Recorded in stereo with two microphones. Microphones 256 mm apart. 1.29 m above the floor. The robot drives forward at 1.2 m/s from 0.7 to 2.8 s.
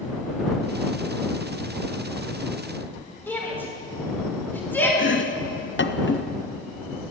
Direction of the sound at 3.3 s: 5° left (ahead or behind).